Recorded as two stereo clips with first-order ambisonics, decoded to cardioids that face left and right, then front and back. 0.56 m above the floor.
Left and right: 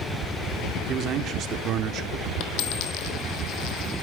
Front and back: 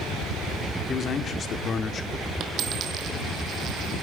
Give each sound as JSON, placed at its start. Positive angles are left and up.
{"t": 0.9, "sound": "a man speaking", "azimuth_deg": -50, "distance_m": 1.1}
{"t": 2.4, "sound": "a dropped coin", "azimuth_deg": 120, "distance_m": 1.7}